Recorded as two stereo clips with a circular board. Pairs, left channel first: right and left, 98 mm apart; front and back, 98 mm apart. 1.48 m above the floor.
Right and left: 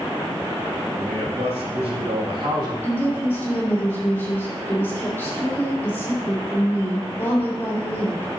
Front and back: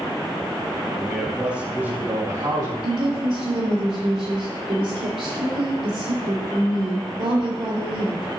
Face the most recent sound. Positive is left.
turn(degrees=-160)